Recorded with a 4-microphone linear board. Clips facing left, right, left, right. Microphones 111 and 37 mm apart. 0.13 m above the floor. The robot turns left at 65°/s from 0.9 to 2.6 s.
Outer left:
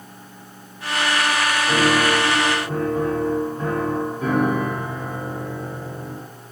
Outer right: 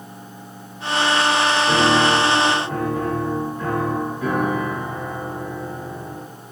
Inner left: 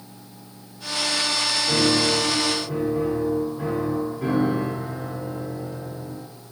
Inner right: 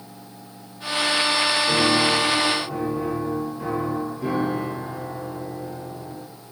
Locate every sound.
1.7 s a piano: 165° right, 1.8 m; by 6.2 s 135° left, 1.8 m